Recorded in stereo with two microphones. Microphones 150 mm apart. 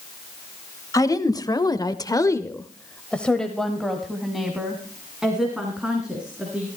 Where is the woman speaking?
25° left (ahead or behind), 1.4 m; by 6.7 s 5° right (ahead or behind), 4 m.